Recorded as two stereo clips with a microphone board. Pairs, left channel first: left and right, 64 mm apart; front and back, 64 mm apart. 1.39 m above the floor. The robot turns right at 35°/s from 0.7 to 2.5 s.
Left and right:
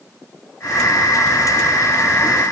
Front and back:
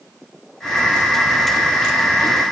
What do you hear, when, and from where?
Only background noise.